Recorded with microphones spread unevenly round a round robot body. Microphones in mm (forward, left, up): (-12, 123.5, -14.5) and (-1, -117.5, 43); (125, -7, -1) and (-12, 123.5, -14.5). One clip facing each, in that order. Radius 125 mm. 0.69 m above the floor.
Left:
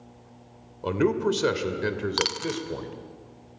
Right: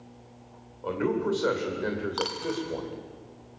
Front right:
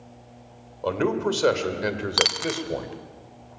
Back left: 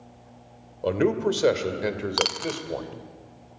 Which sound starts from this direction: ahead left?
A dropped coin, at 2.2 s.